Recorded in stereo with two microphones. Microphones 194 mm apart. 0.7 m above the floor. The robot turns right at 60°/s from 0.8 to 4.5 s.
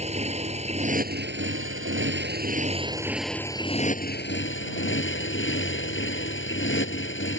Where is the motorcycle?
145° right; by 7.4 s 75° left.